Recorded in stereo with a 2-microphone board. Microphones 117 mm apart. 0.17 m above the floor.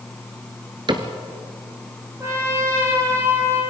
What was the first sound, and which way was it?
A cupboard door, 40° right (ahead or behind).